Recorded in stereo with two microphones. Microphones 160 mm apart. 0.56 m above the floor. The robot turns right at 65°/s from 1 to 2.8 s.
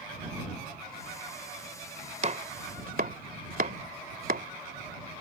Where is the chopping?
45° right (ahead or behind); by 4.5 s 65° right (ahead or behind).